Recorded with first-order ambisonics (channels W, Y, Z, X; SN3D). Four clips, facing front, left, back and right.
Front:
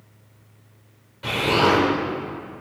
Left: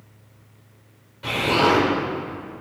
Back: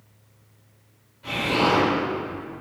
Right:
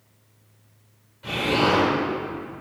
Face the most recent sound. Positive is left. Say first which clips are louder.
# left 3 dB, front 3 dB
turn(degrees=30)